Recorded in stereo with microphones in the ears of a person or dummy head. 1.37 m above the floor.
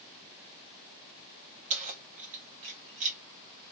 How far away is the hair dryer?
No hair dryer in this recording.